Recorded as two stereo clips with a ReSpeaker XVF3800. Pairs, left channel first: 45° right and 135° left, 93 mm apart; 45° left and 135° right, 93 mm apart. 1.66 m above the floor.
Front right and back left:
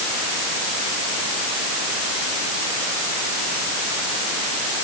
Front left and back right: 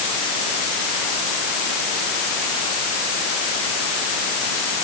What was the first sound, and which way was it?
Only background noise.